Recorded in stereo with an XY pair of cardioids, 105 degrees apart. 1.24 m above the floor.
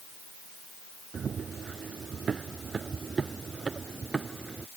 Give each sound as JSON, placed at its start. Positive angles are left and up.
{"t": 1.1, "sound": "running footsteps", "azimuth_deg": -45}